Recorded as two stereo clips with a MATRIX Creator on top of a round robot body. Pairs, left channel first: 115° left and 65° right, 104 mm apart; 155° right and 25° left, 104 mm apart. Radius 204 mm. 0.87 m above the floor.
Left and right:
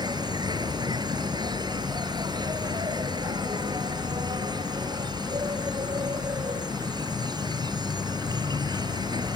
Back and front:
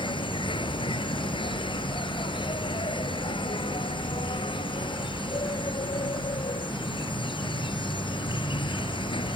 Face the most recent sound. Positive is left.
turn(degrees=-115)